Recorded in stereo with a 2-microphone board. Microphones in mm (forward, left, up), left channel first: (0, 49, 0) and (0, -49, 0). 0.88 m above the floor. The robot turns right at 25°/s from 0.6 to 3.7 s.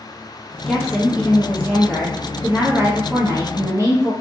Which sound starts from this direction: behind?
A woman speaking, at 0.7 s.